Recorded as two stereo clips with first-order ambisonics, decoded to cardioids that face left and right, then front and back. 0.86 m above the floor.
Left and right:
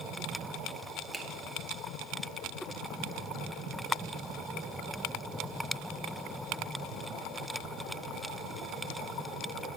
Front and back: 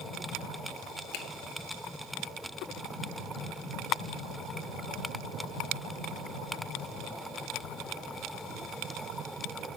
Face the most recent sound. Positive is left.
turn(degrees=-10)